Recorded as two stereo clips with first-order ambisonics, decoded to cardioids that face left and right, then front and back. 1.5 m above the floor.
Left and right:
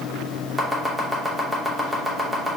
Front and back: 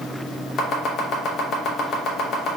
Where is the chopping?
10° right, 0.8 m.